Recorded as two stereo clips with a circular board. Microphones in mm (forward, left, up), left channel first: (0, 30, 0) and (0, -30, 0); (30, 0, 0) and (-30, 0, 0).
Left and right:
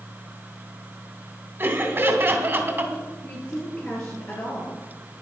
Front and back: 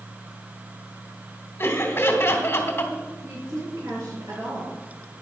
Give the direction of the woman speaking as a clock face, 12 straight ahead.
7 o'clock.